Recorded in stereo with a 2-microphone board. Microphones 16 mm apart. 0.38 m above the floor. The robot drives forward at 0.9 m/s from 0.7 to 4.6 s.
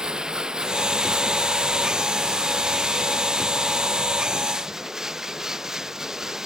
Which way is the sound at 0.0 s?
45° right (ahead or behind).